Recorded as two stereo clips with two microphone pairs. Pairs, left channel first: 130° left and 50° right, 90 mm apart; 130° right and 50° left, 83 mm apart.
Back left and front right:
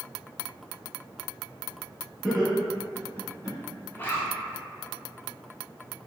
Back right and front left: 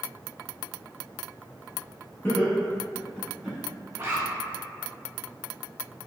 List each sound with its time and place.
2.2 s laughter: 120° right, 1.1 m; by 3.6 s 135° left, 1.2 m
3.9 s a zipper: 80° left, 0.7 m